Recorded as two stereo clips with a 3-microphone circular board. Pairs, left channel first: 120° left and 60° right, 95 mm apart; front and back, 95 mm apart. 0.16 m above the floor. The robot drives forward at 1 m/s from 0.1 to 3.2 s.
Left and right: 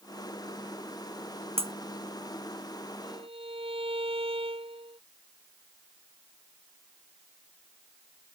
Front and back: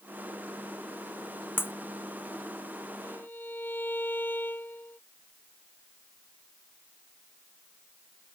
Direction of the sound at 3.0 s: 70° right.